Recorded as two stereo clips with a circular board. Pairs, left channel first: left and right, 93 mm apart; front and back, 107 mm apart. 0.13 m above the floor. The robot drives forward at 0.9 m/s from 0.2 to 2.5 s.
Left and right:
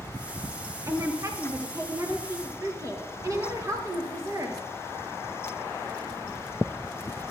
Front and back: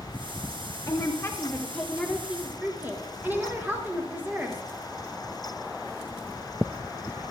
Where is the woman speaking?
45° right, 1.8 m; by 4.6 s 115° right, 1.6 m.